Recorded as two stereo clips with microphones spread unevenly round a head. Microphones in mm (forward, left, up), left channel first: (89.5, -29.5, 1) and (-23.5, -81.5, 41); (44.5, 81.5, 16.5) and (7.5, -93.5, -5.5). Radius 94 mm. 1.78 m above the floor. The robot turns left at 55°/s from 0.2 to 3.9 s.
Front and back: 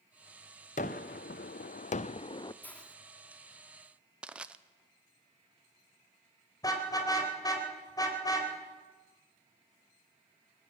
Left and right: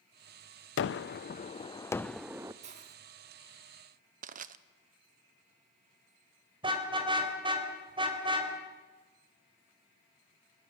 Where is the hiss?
65° right, 1.6 m; by 3.0 s 80° right, 1.6 m.